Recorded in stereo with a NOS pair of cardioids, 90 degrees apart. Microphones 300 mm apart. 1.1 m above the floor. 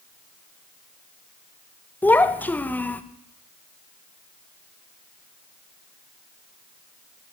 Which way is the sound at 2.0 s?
5° left.